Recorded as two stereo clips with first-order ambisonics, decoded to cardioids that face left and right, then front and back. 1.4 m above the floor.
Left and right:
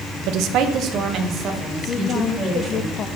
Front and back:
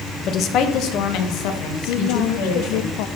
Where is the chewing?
I don't hear chewing.